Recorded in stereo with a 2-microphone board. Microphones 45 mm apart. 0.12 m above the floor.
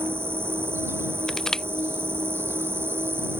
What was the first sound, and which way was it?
An insect, 60° right (ahead or behind).